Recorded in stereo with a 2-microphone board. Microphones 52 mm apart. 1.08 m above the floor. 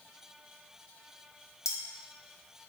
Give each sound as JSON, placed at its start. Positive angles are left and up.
{"t": 1.6, "sound": "cutlery clinking", "side_deg": 75, "distance_m": 0.8}